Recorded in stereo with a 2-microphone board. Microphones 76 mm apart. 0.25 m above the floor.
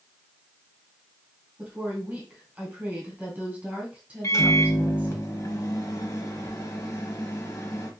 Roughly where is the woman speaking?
Centre.